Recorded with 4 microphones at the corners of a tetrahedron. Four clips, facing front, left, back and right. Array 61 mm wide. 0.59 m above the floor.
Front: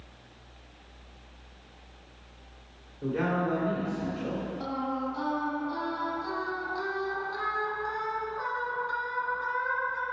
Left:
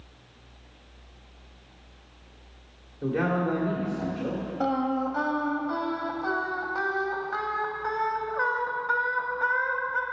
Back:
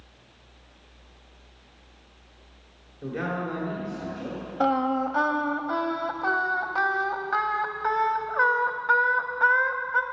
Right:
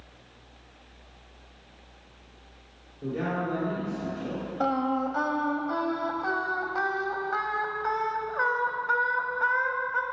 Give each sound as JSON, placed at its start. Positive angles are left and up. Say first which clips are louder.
{"t": 3.0, "sound": "a man speaking", "louder": "left 4 dB, front 2 dB", "azimuth_deg": 90, "distance_m": 1.6}
{"t": 4.6, "sound": "singing", "louder": "even, back 12 dB", "azimuth_deg": -175, "distance_m": 0.7}